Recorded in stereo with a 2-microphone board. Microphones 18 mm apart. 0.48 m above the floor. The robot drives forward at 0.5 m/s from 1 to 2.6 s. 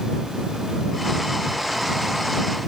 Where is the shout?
I don't hear a shout.